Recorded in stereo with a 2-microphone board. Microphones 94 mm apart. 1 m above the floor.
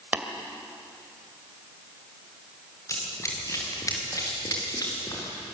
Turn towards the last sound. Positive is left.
turn(degrees=45)  # may be behind; listen again after turning